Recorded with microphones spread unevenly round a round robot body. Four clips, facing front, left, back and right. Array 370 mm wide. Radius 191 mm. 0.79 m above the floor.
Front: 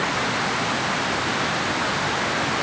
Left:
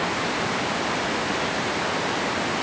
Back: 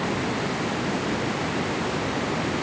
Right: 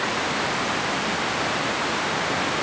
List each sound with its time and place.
Only background noise.